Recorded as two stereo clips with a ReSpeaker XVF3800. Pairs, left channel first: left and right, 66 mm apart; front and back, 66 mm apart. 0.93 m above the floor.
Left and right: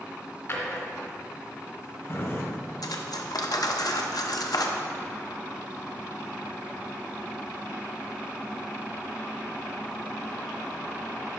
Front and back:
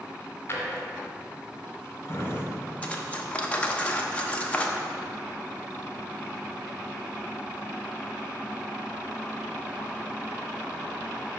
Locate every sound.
0.5 s a drawer: 50° left, 1.7 m
2.8 s cutlery clinking: 70° left, 0.7 m